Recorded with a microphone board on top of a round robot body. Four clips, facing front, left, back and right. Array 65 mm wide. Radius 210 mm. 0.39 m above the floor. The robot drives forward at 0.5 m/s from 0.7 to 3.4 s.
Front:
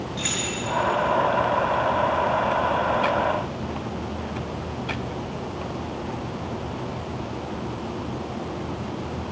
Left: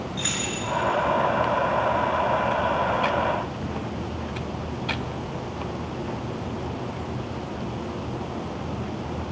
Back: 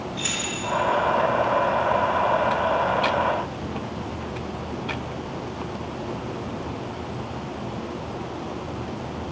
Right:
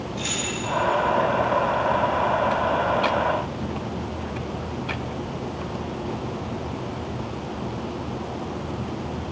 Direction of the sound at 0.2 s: 50° left.